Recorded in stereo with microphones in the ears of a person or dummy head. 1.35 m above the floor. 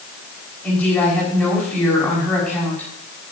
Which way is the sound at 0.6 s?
10° left (ahead or behind).